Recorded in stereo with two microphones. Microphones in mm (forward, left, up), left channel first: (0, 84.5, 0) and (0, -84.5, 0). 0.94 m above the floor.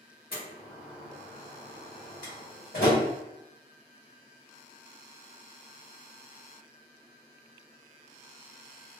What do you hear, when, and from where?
0.3 s a door slam: 65° left (ahead or behind), 1.5 m